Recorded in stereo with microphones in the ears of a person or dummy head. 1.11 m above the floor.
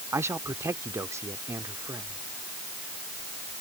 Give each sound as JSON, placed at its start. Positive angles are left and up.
{"t": 0.1, "sound": "a man speaking", "side_deg": -15}